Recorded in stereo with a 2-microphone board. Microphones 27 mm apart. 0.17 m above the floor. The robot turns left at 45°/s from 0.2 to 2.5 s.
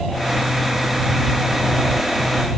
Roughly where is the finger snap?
No finger snap in this recording.